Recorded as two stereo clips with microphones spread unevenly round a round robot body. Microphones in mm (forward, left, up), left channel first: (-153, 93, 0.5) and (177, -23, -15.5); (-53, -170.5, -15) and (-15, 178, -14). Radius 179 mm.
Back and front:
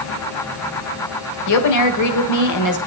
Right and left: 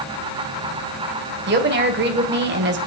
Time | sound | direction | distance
1.5 | a woman speaking | 135° left | 1.7 m